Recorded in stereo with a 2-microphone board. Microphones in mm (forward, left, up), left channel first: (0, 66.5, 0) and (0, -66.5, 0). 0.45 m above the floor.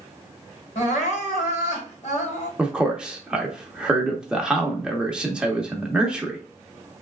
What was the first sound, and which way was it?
Crying, 60° left (ahead or behind).